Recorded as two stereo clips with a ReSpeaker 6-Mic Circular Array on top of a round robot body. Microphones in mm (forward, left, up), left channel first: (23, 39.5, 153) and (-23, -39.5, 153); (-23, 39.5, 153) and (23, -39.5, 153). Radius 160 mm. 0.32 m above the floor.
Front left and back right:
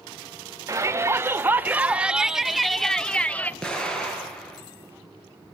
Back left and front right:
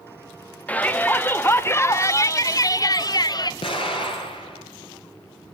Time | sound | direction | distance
0.7 | a shout | 170° right | 2.0 m
3.6 | an explosion | 140° left | 6 m